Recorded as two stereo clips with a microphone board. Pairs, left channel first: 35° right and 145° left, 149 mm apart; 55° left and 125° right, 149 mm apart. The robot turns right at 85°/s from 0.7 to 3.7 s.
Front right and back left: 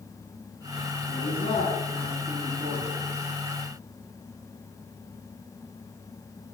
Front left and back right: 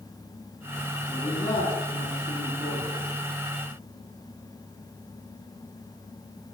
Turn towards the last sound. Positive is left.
turn(degrees=-175)